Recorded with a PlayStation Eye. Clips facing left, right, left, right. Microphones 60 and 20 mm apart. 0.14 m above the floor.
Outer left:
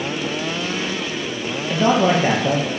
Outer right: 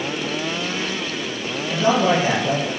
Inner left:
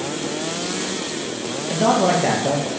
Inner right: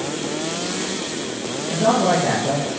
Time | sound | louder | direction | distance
1.7 | a man speaking | outer left 1 dB, even | 45° left (ahead or behind) | 3.5 m